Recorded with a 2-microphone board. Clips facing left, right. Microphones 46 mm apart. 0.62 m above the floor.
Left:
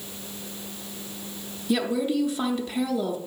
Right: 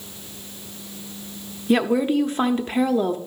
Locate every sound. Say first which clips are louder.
1.7 s a woman speaking: right 5 dB; 40° right (ahead or behind), 0.9 m